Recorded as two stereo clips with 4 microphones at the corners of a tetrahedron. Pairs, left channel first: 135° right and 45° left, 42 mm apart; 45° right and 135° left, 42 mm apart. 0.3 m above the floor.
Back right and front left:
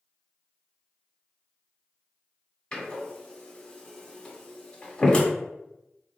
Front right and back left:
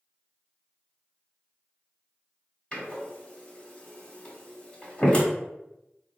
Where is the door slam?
75° right, 0.9 m.